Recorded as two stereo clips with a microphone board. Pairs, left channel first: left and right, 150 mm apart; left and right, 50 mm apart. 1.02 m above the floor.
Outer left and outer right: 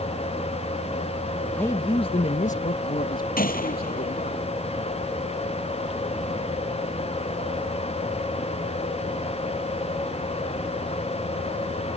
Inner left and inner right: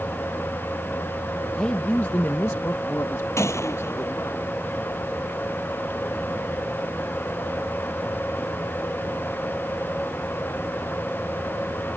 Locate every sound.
1.6 s a man speaking: 10° left (ahead or behind); by 4.4 s 80° left
3.4 s a gunshot: 70° left (ahead or behind)